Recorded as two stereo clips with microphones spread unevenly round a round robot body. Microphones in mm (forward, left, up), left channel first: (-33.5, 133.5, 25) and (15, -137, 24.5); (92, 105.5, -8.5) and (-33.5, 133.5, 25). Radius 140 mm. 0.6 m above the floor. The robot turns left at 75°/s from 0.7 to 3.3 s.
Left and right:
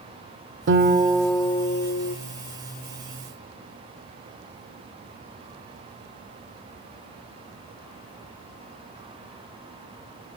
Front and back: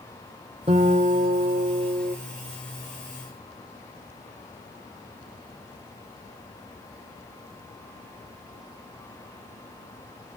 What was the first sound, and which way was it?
A guitar, 125° right.